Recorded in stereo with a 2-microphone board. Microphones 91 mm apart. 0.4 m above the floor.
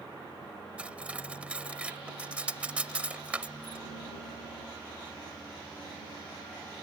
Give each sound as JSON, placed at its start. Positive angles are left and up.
{"t": 0.8, "sound": "cutlery clinking", "side_deg": -15}